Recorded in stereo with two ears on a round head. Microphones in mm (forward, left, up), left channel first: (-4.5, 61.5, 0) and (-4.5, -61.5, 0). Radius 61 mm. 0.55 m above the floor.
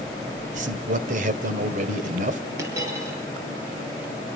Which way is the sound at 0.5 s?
60° right (ahead or behind).